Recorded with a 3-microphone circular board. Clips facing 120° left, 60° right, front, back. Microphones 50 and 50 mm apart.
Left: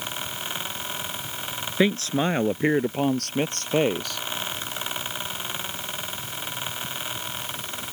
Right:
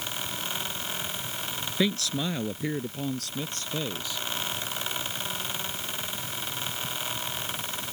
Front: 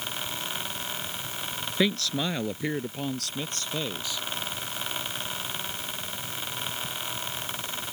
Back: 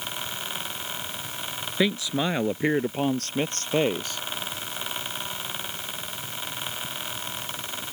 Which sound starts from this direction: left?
A man speaking, at 1.8 s.